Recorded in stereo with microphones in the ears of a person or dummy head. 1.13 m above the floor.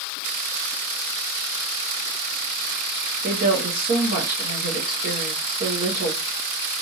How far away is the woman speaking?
About 1.3 m.